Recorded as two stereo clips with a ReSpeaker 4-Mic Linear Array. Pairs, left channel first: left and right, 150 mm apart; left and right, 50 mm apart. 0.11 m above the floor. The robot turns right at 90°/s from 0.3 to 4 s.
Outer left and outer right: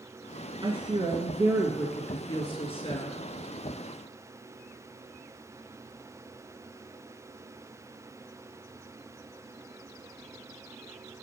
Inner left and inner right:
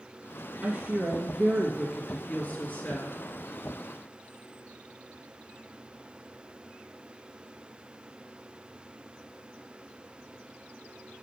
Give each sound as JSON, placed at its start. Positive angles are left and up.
{"t": 0.6, "sound": "a woman speaking", "azimuth_deg": -110, "distance_m": 1.9}